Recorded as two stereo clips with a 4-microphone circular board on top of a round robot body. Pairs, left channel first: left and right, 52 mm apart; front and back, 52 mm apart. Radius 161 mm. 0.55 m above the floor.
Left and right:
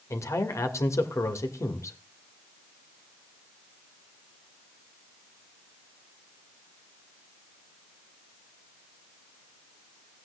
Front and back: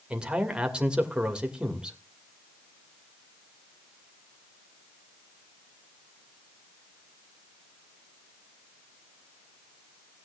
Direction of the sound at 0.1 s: 110° left.